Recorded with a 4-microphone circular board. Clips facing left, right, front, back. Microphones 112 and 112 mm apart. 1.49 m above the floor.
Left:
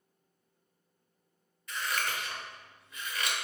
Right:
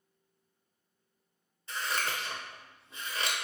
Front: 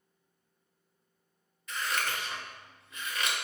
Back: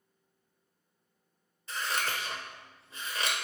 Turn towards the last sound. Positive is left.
turn(degrees=-135)